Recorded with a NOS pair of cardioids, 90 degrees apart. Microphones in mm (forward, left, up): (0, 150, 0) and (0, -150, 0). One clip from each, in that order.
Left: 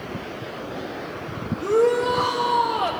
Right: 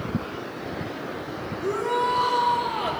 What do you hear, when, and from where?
1.6 s a shout: 50° left, 1.2 m